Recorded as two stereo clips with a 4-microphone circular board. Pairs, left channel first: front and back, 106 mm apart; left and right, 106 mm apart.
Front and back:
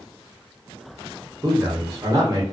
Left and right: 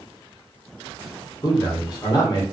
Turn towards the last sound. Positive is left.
turn(degrees=130)